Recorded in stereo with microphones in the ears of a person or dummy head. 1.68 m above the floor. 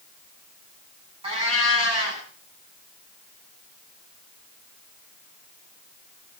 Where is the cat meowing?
25° right (ahead or behind), 8 m.